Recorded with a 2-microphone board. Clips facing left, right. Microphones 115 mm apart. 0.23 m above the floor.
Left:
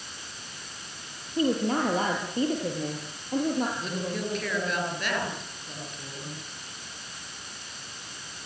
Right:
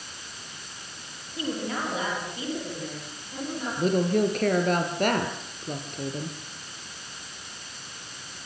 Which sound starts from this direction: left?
A woman speaking, at 1.4 s.